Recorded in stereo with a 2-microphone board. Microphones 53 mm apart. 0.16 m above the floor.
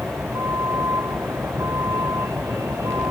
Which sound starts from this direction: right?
A vehicle, at 0.0 s.